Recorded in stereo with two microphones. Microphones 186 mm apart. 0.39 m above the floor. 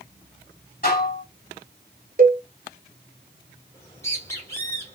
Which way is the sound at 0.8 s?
50° left (ahead or behind).